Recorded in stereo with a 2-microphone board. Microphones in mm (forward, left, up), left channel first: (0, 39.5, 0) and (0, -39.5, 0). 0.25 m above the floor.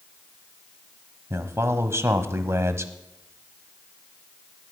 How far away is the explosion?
No explosion in this recording.